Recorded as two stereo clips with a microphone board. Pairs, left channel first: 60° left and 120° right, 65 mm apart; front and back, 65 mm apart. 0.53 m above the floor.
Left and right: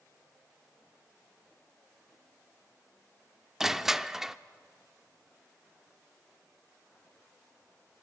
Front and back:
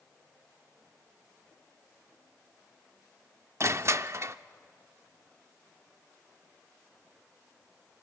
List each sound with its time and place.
3.6 s crushing: 160° left, 0.5 m